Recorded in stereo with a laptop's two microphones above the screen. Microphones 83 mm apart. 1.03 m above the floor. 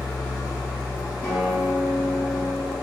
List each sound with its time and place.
0.0 s an engine running: 30° right (ahead or behind), 1.8 m
1.2 s a guitar: 25° left (ahead or behind), 0.7 m